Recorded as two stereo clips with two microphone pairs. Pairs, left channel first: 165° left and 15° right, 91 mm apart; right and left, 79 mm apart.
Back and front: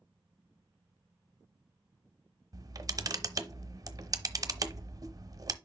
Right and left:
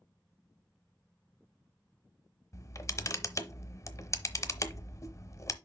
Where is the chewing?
No chewing in this recording.